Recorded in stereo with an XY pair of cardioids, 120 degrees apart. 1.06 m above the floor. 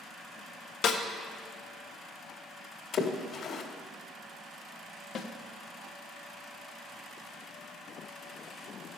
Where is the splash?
55° left, 1.8 m.